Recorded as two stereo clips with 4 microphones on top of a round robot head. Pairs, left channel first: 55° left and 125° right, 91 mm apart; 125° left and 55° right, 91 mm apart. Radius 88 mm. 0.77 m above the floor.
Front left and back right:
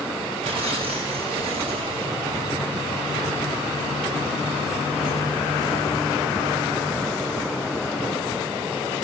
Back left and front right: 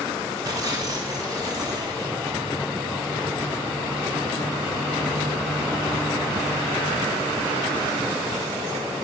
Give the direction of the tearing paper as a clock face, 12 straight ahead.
4 o'clock.